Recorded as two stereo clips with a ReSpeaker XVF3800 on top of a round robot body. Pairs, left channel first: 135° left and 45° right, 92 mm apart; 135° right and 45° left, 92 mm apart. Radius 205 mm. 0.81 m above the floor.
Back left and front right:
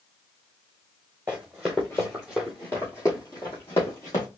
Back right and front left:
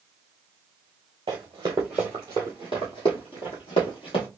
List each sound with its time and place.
1.3 s running footsteps: 25° left, 0.8 m; by 4.3 s 165° right, 1.6 m